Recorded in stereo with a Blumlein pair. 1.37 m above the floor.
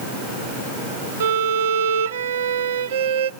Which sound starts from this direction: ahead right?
A violin, at 1.2 s.